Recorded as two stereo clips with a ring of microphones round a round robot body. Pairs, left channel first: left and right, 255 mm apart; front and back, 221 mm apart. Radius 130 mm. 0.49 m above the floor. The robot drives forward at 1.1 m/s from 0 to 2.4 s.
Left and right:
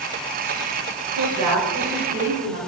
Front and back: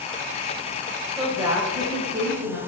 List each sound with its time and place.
1.2 s a woman speaking: 95° right, 1.5 m; by 2.6 s 135° right, 2 m